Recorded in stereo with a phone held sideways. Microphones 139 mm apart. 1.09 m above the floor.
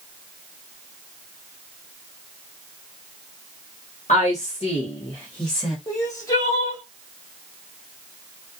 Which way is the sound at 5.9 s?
25° left (ahead or behind).